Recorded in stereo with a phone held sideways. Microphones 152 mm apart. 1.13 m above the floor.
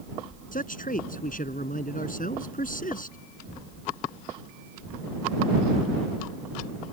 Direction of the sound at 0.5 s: 65° left (ahead or behind).